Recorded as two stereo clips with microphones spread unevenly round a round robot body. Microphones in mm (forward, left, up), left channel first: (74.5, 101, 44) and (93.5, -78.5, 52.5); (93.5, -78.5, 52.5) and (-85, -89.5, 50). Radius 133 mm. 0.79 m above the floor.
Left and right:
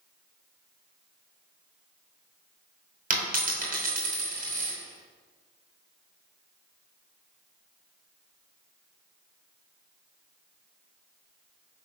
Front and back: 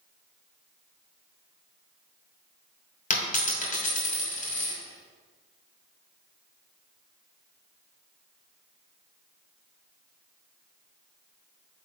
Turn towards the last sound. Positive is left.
turn(degrees=-40)